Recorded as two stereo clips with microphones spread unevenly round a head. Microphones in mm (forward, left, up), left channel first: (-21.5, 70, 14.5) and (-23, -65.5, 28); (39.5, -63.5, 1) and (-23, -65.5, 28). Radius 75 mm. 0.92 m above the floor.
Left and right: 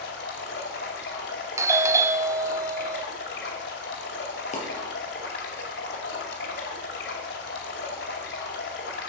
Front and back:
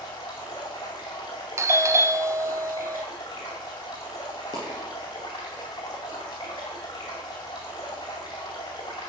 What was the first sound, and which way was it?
Running water, 70° left.